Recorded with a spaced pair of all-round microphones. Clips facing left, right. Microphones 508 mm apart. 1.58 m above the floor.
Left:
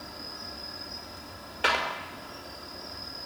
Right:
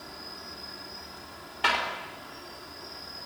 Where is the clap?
20° right (ahead or behind), 5 m.